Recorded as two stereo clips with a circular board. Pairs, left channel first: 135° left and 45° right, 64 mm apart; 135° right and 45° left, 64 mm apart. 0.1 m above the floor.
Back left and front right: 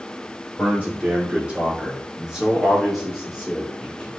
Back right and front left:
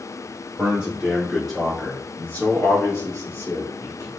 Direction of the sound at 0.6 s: Straight ahead.